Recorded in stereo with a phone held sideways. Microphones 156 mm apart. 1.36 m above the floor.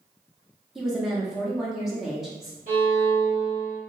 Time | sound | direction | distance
0.8 | a woman speaking | centre (ahead or behind) | 0.6 m
2.7 | a violin | 60° right (ahead or behind) | 1.7 m